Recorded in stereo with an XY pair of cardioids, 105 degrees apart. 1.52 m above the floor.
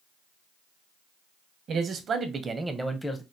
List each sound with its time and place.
1.7 s a man speaking: 60° right, 1.1 m; by 3.2 s 25° left, 0.6 m